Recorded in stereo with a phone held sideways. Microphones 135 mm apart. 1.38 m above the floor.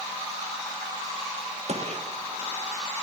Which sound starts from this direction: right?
A gunshot, at 1.7 s.